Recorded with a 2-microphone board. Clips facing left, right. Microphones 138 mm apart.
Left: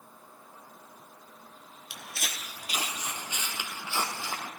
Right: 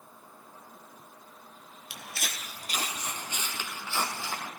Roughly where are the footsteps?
Centre.